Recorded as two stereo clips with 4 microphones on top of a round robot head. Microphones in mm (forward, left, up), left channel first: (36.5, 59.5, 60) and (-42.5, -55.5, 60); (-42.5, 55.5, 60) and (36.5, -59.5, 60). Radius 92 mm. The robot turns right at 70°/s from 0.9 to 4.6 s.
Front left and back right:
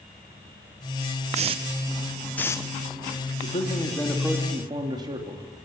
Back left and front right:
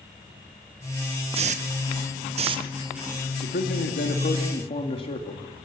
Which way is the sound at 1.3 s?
95° right.